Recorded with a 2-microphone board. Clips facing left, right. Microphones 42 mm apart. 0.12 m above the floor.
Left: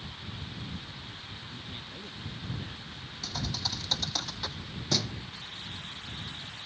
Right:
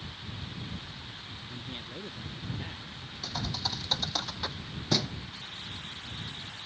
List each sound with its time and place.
1.5 s a man speaking: 20° right (ahead or behind); by 3.1 s 40° right (ahead or behind)
3.2 s a thud: 10° right (ahead or behind)